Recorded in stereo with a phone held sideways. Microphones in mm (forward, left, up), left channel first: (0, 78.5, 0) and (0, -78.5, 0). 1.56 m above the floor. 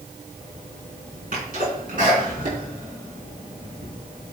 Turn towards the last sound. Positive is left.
turn(degrees=-65)  # may be behind; listen again after turning